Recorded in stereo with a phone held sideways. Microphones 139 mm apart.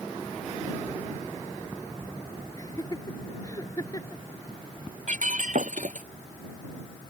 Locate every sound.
2.6 s laughter: 25° left (ahead or behind)
5.1 s breaking glass: 65° right (ahead or behind)